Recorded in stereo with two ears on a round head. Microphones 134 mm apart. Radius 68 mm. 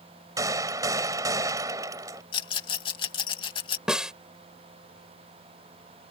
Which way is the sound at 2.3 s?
35° left (ahead or behind).